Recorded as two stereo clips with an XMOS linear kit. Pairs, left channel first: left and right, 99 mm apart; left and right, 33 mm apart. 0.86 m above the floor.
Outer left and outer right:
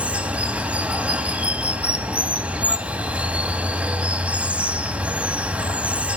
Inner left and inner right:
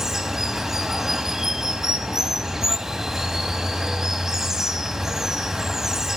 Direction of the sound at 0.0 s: 15° right (ahead or behind).